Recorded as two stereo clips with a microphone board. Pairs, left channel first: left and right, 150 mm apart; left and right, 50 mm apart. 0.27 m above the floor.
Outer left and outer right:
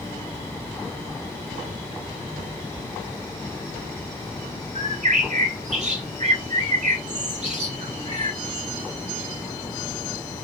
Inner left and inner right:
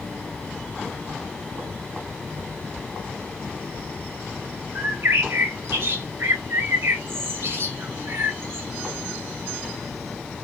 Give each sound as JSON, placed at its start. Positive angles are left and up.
{"t": 4.8, "sound": "a bird", "side_deg": -50, "distance_m": 1.3}